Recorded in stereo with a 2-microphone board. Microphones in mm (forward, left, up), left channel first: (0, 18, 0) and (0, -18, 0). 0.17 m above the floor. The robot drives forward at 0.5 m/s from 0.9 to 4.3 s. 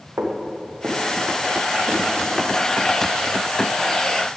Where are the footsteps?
80° right, 2.5 m; by 2.4 s 75° right (ahead or behind), 3.5 m.